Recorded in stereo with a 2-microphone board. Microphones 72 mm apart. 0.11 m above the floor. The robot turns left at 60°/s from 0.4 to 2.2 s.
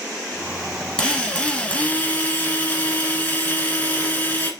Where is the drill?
10° left (ahead or behind), 1.3 m; by 4.5 s 20° left (ahead or behind), 1.3 m.